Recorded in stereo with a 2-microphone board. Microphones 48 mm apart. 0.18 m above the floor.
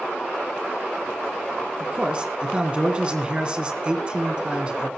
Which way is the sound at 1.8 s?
25° right (ahead or behind).